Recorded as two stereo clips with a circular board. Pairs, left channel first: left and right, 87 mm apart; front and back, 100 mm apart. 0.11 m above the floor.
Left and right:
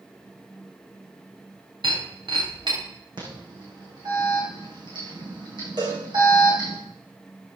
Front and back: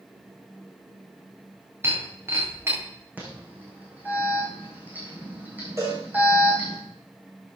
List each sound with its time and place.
1.8 s breaking glass: 115° right, 5 m
3.2 s an alarm: 110° right, 5 m
5.8 s a cowbell: 120° right, 4 m